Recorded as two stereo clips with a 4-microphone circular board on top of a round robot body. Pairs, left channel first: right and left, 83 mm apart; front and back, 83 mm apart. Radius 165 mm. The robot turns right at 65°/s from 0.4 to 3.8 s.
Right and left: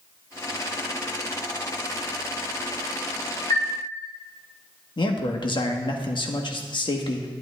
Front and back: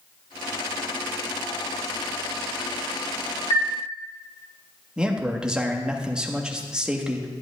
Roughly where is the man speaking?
Right.